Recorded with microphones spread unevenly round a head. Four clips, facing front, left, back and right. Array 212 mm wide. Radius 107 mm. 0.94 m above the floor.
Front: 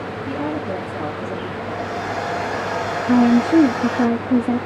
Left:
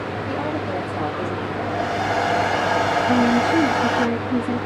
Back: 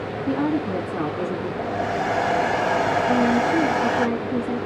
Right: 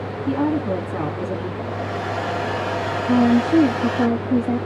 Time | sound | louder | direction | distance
0.3 | a woman speaking | right 7 dB, back 3 dB | 110° right | 2 m
1.6 | a hair dryer | left 3 dB, back 4 dB | 160° left | 0.9 m
3.1 | a woman speaking | right 4 dB, front 9 dB | 25° right | 0.7 m